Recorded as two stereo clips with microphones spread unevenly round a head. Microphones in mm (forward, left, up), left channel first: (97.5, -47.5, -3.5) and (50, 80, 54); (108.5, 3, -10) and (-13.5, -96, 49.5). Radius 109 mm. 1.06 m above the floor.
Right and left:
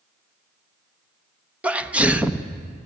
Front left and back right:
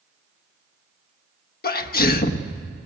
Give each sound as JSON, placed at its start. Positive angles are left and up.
{"t": 1.6, "sound": "a sneeze", "azimuth_deg": 25, "distance_m": 1.2}